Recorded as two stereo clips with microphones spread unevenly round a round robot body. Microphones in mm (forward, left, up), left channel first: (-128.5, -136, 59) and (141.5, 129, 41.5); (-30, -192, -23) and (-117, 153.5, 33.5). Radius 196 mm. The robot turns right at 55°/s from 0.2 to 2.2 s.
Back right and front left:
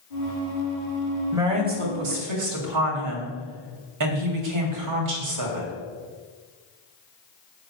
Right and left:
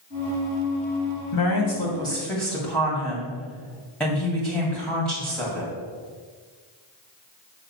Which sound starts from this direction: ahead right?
A woman speaking, at 1.3 s.